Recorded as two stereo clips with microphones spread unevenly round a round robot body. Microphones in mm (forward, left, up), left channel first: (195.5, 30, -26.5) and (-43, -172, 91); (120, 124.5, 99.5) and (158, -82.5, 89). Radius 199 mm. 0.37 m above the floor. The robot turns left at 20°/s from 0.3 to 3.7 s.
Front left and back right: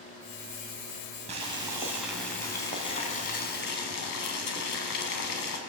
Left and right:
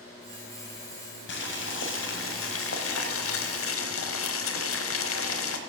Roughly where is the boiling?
Behind left.